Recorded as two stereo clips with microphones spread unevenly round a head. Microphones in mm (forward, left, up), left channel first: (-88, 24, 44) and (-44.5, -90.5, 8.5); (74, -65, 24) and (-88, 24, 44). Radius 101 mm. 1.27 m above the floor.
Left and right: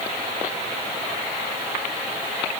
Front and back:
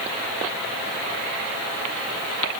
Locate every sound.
Only background noise.